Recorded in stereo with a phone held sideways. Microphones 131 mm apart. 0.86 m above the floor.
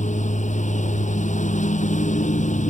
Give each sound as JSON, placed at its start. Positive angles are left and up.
{"t": 0.0, "sound": "a lawn mower", "side_deg": 70}